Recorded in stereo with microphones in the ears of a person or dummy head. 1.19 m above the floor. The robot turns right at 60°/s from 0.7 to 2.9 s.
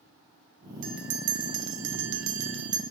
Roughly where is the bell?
Behind right.